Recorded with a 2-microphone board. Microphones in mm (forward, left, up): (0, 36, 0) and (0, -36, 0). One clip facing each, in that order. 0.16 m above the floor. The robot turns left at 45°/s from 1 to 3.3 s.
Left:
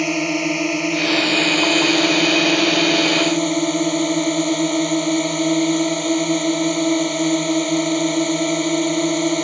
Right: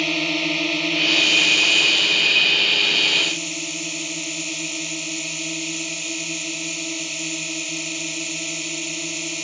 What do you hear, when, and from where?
0.0 s a drone: 160° left; by 9.4 s 55° left